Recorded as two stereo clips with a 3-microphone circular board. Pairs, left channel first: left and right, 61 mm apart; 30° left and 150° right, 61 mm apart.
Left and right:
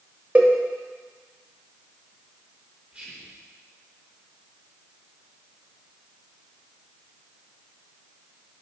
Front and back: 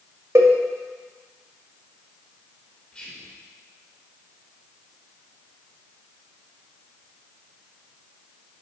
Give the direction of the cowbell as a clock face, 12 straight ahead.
5 o'clock.